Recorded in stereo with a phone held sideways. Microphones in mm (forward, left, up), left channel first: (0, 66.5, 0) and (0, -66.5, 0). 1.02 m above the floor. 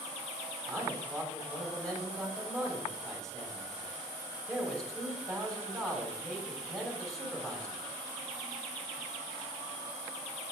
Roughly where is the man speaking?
Centre.